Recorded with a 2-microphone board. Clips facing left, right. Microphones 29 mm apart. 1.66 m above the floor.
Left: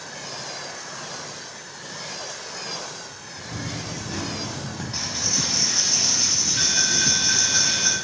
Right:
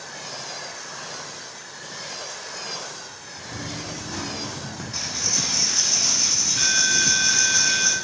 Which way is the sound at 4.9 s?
35° left (ahead or behind).